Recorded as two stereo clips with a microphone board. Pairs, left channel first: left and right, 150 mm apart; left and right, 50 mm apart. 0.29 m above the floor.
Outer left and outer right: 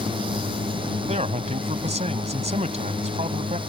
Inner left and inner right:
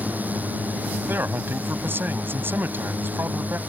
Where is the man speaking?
50° right (ahead or behind).